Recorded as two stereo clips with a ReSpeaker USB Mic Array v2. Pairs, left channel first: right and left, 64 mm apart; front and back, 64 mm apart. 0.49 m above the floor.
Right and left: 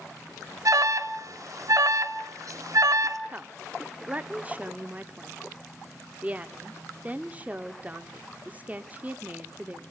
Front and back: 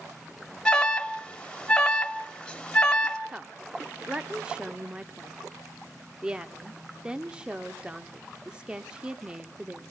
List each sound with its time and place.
0.7 s an alarm: 75° left, 1.8 m
3.3 s a woman speaking: 120° left, 1.0 m